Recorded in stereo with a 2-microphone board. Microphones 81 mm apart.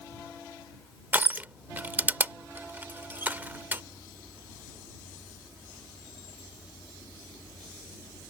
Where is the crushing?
25° right (ahead or behind).